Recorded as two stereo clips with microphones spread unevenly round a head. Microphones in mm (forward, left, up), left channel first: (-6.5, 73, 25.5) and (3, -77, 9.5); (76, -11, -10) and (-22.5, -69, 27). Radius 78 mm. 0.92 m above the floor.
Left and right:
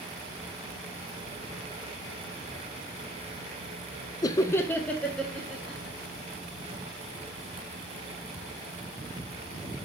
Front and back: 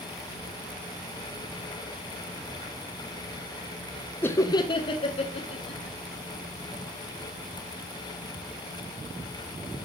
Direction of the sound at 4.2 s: 35° left.